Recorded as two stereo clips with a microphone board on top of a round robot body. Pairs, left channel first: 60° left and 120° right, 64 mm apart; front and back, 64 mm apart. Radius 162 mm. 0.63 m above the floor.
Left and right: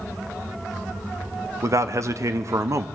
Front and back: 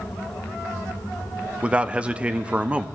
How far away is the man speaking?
About 0.8 m.